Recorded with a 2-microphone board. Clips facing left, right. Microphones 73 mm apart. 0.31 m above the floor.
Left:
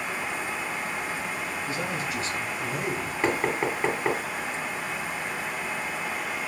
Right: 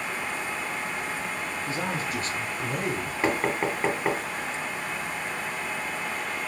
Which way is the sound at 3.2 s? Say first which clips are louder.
Even; 5° right (ahead or behind).